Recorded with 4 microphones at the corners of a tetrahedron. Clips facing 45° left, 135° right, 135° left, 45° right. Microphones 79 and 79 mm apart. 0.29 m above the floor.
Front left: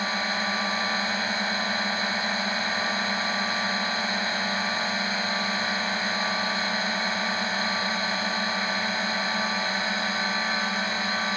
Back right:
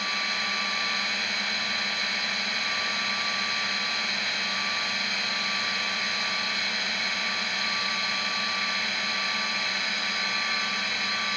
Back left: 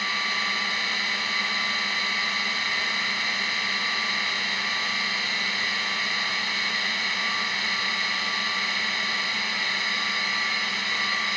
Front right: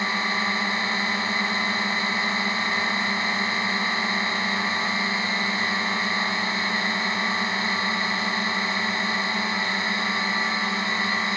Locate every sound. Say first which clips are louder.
0.0 s a drone: front left 4 dB, front right 3 dB; 5° left